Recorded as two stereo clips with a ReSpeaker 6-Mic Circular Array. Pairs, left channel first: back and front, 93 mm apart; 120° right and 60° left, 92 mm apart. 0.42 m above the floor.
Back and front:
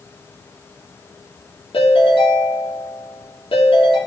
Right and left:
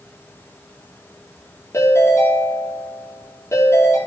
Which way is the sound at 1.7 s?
Straight behind.